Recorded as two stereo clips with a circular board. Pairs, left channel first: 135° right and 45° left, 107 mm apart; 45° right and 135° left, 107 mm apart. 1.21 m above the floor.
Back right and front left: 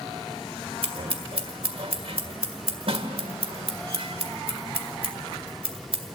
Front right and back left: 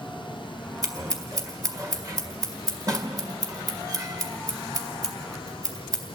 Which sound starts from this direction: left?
Scissors, at 0.8 s.